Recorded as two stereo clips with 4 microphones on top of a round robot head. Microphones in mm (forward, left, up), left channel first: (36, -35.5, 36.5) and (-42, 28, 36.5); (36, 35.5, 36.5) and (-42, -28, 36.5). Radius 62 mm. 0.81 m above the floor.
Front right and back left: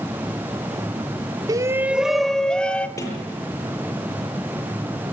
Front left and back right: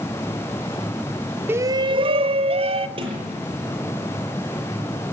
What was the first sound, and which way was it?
A shout, 160° left.